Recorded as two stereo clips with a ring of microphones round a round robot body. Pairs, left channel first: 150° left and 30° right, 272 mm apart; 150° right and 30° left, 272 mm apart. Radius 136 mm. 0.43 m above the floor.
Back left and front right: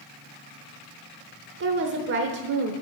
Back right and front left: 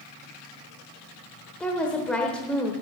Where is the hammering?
No hammering in this recording.